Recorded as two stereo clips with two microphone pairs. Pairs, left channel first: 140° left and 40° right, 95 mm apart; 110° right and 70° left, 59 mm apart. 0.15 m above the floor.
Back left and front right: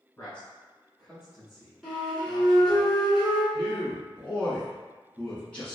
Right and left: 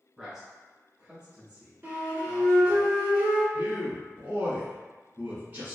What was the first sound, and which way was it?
A man speaking, 130° left.